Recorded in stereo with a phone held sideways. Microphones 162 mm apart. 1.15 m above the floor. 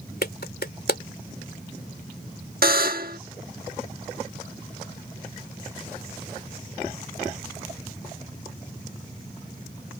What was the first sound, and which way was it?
A clap, 85° left.